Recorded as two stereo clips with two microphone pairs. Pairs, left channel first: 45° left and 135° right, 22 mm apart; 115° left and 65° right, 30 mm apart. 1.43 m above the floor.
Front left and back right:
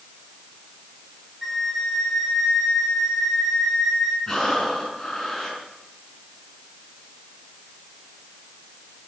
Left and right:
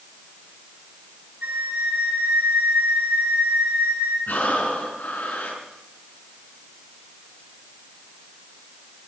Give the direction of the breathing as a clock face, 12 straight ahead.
8 o'clock.